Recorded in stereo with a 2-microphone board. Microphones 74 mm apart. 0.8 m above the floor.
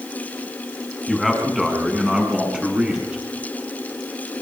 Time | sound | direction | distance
1.1 | a man speaking | centre (ahead or behind) | 7.5 m